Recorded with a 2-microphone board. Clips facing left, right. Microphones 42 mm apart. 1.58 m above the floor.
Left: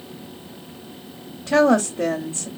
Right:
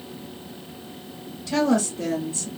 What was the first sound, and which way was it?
A woman speaking, 45° left (ahead or behind).